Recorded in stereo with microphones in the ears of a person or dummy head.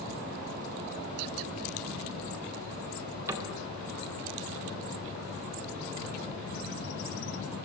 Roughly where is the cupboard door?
Centre.